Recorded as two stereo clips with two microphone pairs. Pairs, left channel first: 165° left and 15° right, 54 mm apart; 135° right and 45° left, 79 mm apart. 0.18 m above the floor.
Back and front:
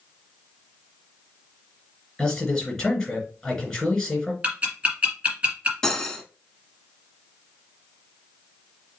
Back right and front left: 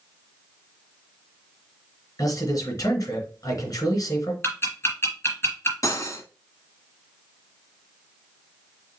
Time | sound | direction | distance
2.2 | a man speaking | 120° right | 2.5 m
4.4 | ticking | 80° right | 3.5 m
5.8 | cutlery clinking | 125° right | 1.2 m